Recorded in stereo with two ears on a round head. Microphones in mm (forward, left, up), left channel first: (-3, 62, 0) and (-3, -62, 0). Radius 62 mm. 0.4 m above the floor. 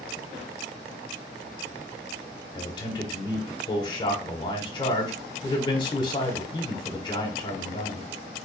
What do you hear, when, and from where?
2.5 s a man speaking: 30° left (ahead or behind), 1.0 m